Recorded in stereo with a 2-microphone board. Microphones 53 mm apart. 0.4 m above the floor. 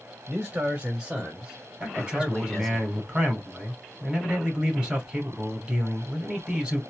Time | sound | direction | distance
0.3 | a man speaking | 30° right (ahead or behind) | 2.5 m
1.8 | a man speaking | 20° right (ahead or behind) | 2 m